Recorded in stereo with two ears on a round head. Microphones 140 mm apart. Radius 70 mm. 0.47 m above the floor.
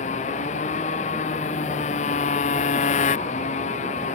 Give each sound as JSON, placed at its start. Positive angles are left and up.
{"t": 0.0, "sound": "a motorcycle", "side_deg": 45}